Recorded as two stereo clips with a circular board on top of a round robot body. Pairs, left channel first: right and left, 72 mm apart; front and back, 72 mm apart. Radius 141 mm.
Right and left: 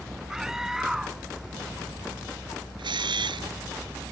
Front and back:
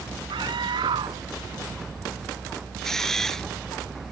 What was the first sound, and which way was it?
A scream, 175° left.